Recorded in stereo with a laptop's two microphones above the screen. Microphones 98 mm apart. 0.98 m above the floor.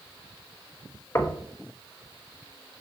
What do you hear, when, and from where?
1.1 s knocking: 30° left (ahead or behind), 0.9 m